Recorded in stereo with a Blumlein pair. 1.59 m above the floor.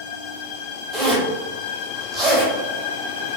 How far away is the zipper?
About 1.7 m.